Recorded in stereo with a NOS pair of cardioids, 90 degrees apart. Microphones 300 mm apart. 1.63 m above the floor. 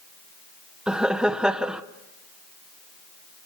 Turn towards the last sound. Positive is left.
turn(degrees=-5)